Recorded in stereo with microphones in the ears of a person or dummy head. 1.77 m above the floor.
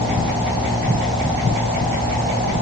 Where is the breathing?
I don't hear breathing.